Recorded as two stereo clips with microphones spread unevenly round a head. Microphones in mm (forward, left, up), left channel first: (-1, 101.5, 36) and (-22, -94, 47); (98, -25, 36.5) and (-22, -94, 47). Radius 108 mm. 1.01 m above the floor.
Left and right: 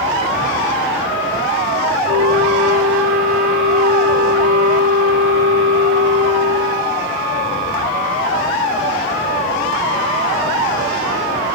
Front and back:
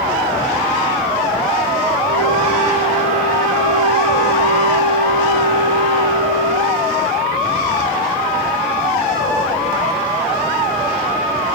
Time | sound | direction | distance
2.0 | a flute | 130° right | 1.6 m